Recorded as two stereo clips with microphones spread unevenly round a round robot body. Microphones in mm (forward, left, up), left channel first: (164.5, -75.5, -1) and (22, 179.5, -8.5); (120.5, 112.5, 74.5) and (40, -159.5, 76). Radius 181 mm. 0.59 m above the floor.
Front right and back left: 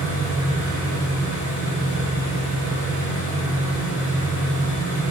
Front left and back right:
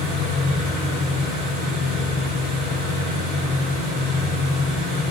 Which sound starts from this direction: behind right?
An engine running, at 0.0 s.